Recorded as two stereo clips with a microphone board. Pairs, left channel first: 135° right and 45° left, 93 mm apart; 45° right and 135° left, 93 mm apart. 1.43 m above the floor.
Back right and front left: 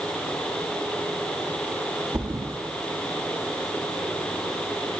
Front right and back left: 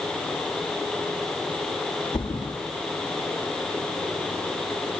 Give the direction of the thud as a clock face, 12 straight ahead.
12 o'clock.